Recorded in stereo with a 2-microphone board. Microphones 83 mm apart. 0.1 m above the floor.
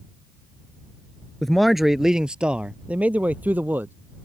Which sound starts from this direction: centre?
A man speaking, at 1.4 s.